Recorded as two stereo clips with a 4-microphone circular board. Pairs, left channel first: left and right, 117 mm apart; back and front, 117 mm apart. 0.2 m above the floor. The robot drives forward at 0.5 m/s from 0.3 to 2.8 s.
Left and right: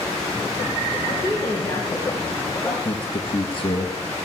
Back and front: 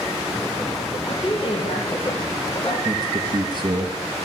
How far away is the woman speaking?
About 3 m.